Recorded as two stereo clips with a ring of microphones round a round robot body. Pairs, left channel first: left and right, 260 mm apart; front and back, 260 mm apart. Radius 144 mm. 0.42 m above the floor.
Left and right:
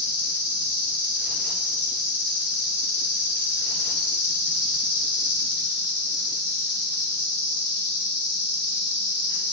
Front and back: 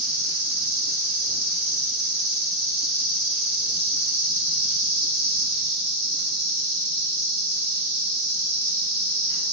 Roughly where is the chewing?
I don't hear chewing.